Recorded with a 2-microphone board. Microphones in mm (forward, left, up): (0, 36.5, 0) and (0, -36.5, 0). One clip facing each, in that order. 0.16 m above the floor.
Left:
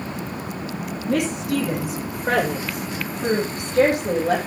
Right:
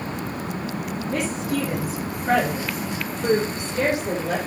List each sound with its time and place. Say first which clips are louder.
1.1 s a woman speaking: left 4 dB; 70° left (ahead or behind), 6.5 m; by 4.4 s 50° left (ahead or behind), 6.5 m